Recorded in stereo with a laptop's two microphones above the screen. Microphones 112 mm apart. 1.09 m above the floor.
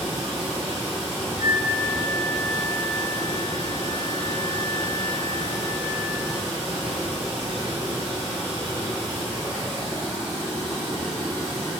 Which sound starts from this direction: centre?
Running water, at 0.0 s.